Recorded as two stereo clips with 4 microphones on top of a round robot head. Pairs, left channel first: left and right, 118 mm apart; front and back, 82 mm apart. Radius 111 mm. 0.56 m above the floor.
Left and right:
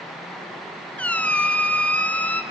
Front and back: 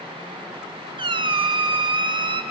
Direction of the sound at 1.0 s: 170° left.